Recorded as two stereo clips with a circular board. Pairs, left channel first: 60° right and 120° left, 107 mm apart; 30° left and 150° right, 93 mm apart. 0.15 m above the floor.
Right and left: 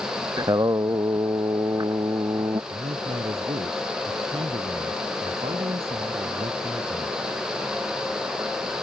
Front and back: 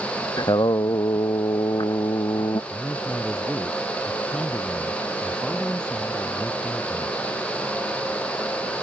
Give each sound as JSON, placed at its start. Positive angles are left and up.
{"t": 0.4, "sound": "singing", "azimuth_deg": 70}
{"t": 2.7, "sound": "a man speaking", "azimuth_deg": 110}